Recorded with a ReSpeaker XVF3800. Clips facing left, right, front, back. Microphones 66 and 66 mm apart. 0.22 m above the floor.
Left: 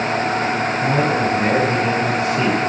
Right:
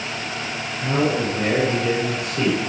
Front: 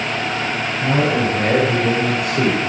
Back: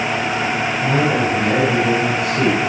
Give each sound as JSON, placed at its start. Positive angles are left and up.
{"t": 0.8, "sound": "a man speaking", "azimuth_deg": 25, "distance_m": 3.0}